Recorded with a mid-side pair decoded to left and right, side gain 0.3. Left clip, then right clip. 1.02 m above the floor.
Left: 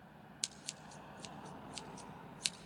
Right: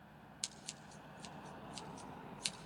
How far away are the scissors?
About 0.7 m.